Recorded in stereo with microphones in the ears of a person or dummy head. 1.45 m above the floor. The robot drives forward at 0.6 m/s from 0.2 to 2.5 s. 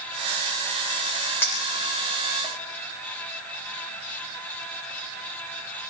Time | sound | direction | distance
1.4 | a clink | 10° left (ahead or behind) | 3 m